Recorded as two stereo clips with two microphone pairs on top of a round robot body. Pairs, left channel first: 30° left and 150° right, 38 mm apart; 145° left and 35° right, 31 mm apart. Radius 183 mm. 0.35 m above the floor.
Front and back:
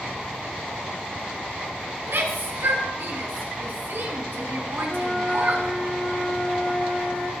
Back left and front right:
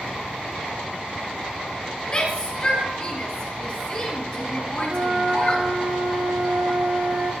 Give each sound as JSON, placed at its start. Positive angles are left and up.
{"t": 2.1, "sound": "a shout", "azimuth_deg": -165, "distance_m": 5.0}
{"t": 4.9, "sound": "a flute", "azimuth_deg": -35, "distance_m": 6.5}